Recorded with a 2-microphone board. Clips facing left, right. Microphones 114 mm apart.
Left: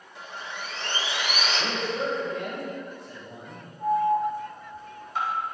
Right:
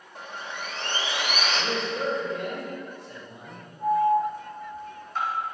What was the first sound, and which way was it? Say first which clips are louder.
Sawing: right 1 dB; 50° right (ahead or behind).